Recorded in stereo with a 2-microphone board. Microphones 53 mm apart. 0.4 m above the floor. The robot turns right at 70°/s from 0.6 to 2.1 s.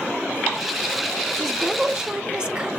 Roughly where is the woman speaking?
Centre.